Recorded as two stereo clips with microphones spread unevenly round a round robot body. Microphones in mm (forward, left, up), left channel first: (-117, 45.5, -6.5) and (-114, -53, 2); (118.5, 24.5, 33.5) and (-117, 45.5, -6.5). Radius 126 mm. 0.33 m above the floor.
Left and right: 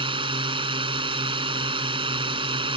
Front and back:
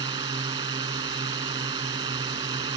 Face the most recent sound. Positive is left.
turn(degrees=-110)